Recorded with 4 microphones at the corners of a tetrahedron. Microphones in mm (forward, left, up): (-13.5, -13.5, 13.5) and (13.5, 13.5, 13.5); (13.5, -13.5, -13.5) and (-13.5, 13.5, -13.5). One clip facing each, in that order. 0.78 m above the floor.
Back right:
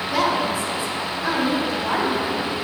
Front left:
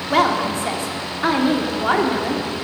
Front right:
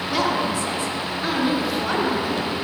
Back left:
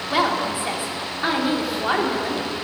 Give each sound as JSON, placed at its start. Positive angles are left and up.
{"t": 0.1, "sound": "a woman speaking", "azimuth_deg": 70, "distance_m": 2.0}